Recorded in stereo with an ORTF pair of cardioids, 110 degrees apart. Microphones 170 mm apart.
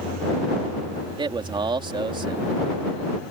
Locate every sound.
1.2 s a man speaking: 30° right